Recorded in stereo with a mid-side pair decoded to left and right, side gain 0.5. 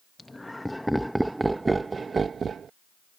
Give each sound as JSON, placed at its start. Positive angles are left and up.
{"t": 0.2, "sound": "laughter", "azimuth_deg": 15}